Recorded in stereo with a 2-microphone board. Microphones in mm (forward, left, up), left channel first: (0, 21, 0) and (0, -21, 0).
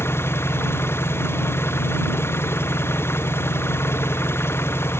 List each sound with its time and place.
0.0 s an engine running: 75° left (ahead or behind)